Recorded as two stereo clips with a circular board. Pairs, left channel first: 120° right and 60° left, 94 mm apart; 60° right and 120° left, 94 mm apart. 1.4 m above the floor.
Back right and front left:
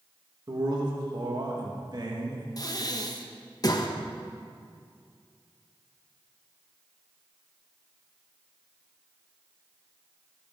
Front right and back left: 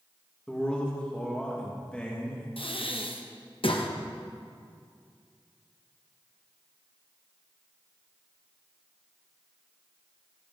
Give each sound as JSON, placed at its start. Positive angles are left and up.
{"t": 0.5, "sound": "a man speaking", "azimuth_deg": 20, "distance_m": 2.5}
{"t": 2.6, "sound": "breathing", "azimuth_deg": -75, "distance_m": 1.0}